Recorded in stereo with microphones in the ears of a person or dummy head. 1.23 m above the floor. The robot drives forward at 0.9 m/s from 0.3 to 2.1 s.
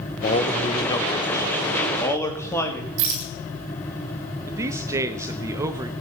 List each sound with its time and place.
0.2 s a man speaking: 30° left (ahead or behind), 0.9 m; by 2.9 s 10° left (ahead or behind), 2.5 m
3.0 s a rattle: 70° right (ahead or behind), 2 m
4.5 s a man speaking: 20° right (ahead or behind), 1.0 m